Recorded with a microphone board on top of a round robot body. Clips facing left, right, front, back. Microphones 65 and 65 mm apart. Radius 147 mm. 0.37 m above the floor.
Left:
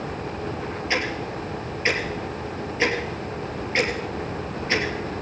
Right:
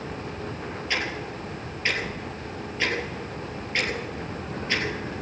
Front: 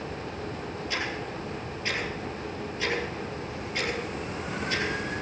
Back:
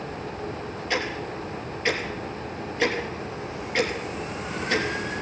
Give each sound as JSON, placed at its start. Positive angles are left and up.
{"t": 0.9, "sound": "ticking", "azimuth_deg": 155, "distance_m": 3.0}